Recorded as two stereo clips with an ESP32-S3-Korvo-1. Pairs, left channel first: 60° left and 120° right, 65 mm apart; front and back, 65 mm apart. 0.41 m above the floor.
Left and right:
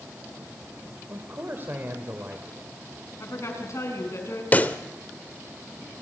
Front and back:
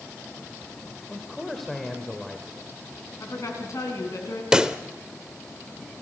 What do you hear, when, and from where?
1.1 s a man speaking: 85° right, 1.7 m
3.2 s a woman speaking: 25° left, 4.5 m
4.5 s a pop: 110° left, 0.8 m